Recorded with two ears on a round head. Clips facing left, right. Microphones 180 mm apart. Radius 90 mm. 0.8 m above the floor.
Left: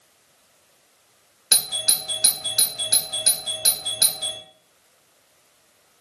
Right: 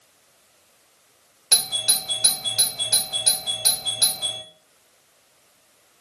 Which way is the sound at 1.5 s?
20° left (ahead or behind).